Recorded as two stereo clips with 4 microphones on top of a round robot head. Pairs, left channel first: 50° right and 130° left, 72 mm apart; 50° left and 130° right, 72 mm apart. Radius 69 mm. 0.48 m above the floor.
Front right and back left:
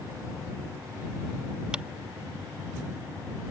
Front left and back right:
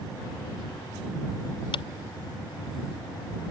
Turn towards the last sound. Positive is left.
turn(degrees=55)